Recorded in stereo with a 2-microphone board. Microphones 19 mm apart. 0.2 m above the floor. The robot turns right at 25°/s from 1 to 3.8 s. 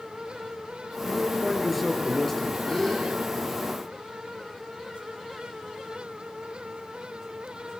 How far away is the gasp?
About 9 m.